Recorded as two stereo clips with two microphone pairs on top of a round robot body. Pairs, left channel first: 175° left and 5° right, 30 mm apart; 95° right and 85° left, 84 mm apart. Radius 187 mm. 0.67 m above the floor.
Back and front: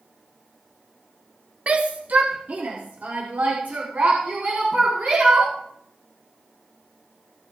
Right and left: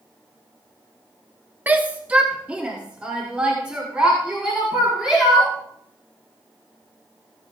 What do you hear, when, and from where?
1.7 s a shout: 20° left, 1.1 m; by 5.5 s 5° left, 5 m